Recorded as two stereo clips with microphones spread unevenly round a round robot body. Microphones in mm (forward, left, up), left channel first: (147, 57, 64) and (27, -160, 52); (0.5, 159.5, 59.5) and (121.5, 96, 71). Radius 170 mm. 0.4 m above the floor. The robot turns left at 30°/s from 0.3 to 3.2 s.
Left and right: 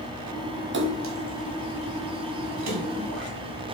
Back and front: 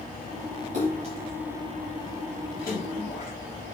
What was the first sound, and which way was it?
A splash, 75° right.